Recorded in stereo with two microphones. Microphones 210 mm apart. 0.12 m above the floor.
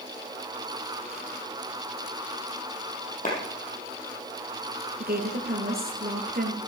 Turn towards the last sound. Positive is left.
turn(degrees=-45)  # may be behind; listen again after turning